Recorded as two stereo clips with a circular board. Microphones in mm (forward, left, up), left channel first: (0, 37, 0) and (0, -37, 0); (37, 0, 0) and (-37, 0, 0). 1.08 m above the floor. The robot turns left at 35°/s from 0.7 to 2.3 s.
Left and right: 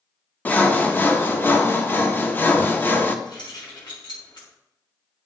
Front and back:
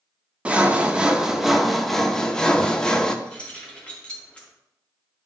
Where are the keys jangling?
75° left, 2.0 m.